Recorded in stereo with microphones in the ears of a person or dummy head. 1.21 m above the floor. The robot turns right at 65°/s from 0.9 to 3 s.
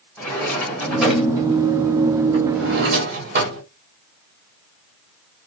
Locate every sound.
0.2 s a drawer: 15° left (ahead or behind), 1.6 m; by 3.6 s 50° right (ahead or behind), 1.6 m